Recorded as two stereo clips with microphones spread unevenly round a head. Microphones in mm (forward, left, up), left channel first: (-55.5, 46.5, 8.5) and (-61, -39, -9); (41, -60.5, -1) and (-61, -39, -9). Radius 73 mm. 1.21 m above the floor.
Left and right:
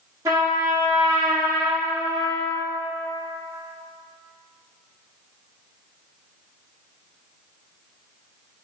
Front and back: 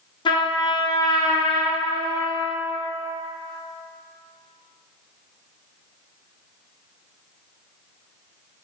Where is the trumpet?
25° right, 0.8 m.